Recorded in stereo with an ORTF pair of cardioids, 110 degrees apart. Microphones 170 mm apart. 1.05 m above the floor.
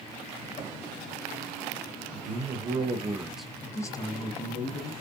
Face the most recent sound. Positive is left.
turn(degrees=40)